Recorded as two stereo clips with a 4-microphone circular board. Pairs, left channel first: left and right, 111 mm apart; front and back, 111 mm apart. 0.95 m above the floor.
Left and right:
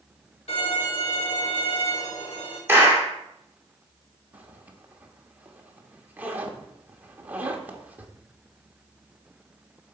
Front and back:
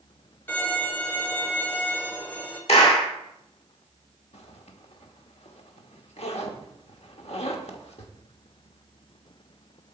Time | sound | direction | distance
0.5 | a violin | 70° left | 3 m
2.7 | a clap | 20° right | 2 m
4.3 | a zipper | 15° right | 1.1 m